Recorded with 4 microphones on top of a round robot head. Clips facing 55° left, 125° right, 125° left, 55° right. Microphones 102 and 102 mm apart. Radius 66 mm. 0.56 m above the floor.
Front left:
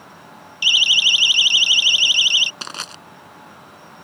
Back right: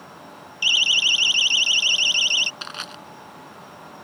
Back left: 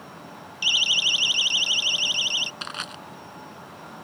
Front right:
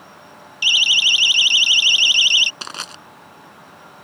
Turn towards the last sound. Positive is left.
turn(degrees=0)